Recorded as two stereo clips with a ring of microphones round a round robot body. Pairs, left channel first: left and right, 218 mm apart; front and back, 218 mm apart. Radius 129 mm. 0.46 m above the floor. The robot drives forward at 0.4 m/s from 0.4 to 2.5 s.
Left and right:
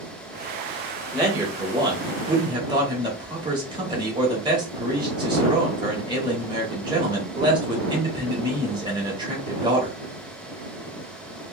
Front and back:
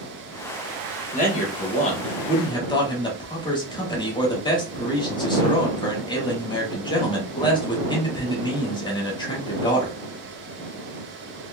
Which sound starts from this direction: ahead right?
A man speaking, at 1.1 s.